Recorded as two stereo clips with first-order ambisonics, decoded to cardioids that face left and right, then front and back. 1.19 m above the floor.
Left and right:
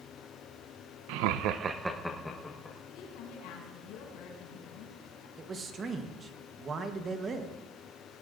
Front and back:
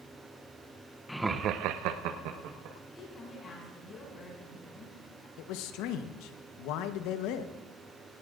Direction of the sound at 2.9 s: 70° left.